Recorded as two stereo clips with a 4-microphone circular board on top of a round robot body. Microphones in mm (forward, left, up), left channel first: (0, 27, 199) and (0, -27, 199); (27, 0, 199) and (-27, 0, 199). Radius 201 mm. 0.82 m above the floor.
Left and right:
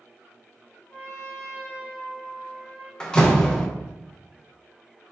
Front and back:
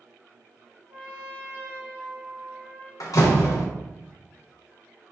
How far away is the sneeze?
I don't hear a sneeze.